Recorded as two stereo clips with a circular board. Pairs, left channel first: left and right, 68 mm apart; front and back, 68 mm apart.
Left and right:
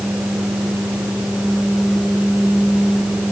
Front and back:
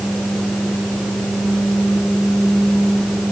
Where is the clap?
I don't hear a clap.